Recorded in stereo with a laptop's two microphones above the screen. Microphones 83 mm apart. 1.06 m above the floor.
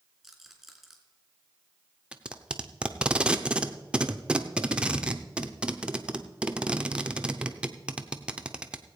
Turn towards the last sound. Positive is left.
turn(degrees=-10)  # may be behind; listen again after turning